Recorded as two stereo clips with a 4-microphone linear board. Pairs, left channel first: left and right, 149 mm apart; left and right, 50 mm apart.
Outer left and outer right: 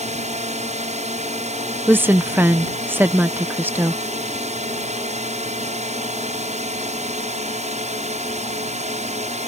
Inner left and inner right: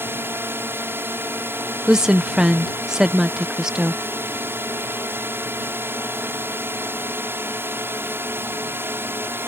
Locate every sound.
0.0 s a drone: 50° right (ahead or behind)
1.9 s a woman speaking: 15° right (ahead or behind)